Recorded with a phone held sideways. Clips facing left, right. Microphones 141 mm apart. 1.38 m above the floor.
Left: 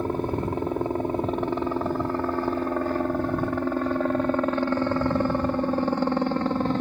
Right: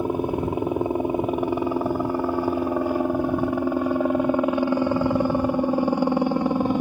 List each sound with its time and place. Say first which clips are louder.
0.0 s a helicopter: right 3 dB; 10° right (ahead or behind)